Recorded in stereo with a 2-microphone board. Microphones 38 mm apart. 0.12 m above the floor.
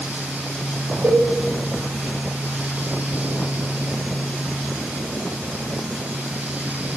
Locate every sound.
1.0 s a cowbell: 80° right, 4 m